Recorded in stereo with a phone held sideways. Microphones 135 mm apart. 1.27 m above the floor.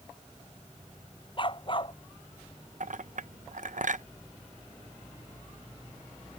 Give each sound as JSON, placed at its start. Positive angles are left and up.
{"t": 1.4, "sound": "a dog barking", "side_deg": 40}
{"t": 2.8, "sound": "a clink", "side_deg": -70}